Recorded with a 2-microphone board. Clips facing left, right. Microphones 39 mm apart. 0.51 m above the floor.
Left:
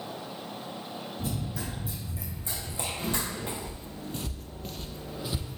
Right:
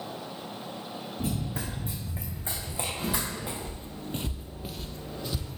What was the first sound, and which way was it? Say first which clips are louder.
Running footsteps: right 3 dB; 80° right.